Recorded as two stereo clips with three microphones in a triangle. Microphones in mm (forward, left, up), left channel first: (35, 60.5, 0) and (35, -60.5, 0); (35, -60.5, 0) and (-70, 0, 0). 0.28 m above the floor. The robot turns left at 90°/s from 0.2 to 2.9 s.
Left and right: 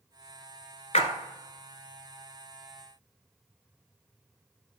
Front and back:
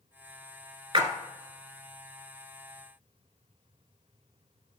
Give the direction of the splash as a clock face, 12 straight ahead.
8 o'clock.